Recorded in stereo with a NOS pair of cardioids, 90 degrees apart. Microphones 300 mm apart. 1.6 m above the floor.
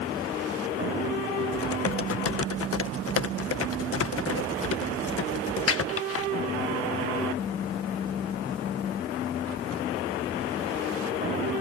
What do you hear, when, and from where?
1.5 s typing on a keyboard: 50° left